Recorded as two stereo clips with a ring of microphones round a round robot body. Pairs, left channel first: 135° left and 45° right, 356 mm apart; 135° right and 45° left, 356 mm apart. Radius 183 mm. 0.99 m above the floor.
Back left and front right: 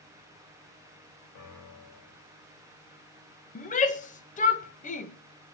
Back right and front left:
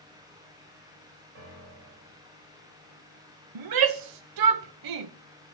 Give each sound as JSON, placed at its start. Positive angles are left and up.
{"t": 1.4, "sound": "a piano", "azimuth_deg": 100, "distance_m": 3.5}
{"t": 3.5, "sound": "a shout", "azimuth_deg": 65, "distance_m": 0.7}